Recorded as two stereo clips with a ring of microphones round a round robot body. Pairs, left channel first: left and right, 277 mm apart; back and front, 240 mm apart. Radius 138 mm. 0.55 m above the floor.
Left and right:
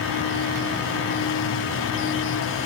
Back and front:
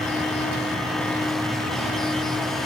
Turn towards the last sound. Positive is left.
No sound to turn to.